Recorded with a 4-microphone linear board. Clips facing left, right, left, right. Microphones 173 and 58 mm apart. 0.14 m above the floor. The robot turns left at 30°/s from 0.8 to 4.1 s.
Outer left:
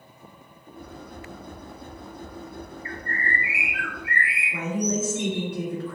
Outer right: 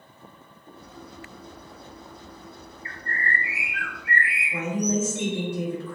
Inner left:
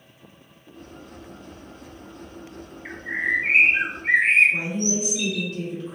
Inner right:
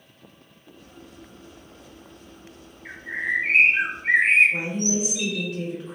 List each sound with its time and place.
2.9 s a bird: 40° left, 0.8 m; by 5.5 s straight ahead, 0.8 m
4.5 s a woman speaking: 15° right (ahead or behind), 1.8 m